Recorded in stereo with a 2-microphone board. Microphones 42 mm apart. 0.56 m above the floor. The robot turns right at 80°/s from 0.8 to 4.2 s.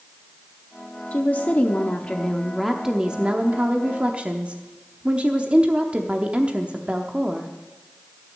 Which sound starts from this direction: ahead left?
A woman speaking, at 1.1 s.